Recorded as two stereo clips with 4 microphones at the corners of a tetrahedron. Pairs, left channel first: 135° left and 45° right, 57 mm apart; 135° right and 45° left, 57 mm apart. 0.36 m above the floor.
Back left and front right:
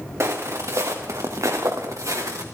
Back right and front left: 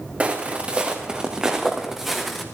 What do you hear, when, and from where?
0.2 s footsteps: 20° right, 3 m; by 2.4 s 45° right, 2.5 m